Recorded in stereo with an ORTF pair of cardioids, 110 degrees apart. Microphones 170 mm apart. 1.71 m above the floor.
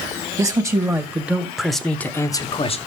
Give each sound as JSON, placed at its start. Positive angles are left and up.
{"t": 0.4, "sound": "a man speaking", "azimuth_deg": -20, "distance_m": 1.7}